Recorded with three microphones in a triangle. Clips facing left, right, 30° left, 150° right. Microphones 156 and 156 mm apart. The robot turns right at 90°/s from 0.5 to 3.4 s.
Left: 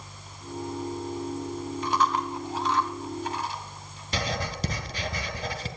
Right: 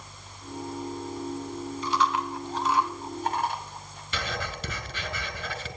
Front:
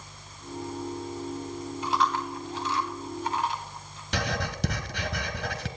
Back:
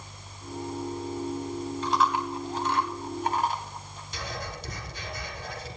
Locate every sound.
1.8 s chewing: 105° left, 1.5 m; by 4.0 s 110° right, 1.5 m
4.1 s writing: 40° left, 1.3 m